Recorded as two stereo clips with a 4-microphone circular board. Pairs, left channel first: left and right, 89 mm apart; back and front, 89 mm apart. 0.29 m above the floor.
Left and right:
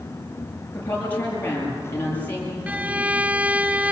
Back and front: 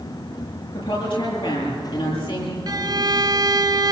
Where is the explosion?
No explosion in this recording.